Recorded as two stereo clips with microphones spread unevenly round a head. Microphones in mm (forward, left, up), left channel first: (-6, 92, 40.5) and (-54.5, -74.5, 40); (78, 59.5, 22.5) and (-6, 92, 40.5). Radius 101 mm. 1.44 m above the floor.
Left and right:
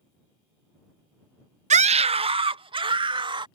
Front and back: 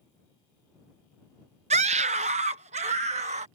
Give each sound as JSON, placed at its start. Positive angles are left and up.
{"t": 1.7, "sound": "a scream", "azimuth_deg": -160}